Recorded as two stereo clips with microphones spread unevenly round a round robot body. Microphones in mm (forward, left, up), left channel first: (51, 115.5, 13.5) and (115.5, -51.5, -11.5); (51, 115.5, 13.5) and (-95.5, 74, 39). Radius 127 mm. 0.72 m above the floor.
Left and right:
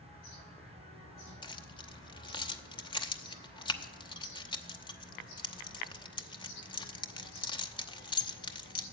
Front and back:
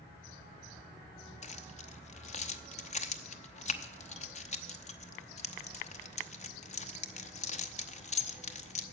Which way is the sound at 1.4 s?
45° left.